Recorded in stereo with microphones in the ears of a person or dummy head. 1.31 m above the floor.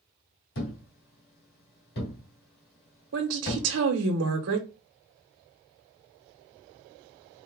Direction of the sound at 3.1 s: 80° right.